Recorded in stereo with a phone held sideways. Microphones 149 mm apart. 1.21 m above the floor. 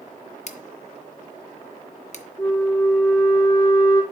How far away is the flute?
About 3.5 m.